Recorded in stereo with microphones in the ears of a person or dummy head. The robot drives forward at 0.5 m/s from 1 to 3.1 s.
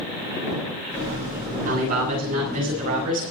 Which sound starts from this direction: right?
A man speaking, at 1.6 s.